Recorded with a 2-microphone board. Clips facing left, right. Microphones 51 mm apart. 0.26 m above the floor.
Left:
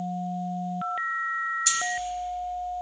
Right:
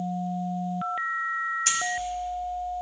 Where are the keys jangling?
45° right (ahead or behind), 1.1 m.